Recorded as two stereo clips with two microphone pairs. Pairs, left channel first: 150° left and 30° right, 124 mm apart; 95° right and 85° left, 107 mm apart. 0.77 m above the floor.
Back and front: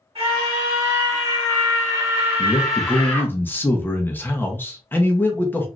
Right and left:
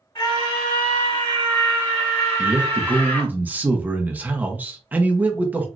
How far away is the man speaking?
About 0.6 m.